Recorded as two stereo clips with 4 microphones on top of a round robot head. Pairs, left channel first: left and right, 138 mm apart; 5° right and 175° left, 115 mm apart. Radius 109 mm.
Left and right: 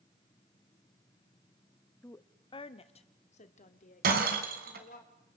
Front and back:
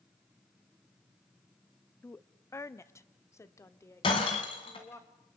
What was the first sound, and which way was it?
A woman speaking, 40° left.